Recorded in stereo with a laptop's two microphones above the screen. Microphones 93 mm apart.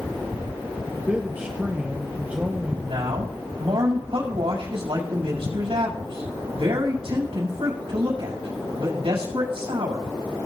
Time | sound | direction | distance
0.9 | a man speaking | 20° right (ahead or behind) | 0.7 m
2.8 | a man speaking | 85° right | 6 m